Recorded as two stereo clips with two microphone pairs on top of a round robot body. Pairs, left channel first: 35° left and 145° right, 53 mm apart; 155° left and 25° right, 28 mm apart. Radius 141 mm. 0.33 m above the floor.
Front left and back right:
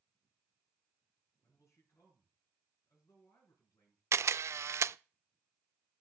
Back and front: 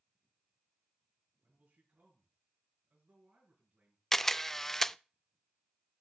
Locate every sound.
1.4 s a man speaking: 10° left, 5 m
4.1 s a camera shutter: 145° right, 0.5 m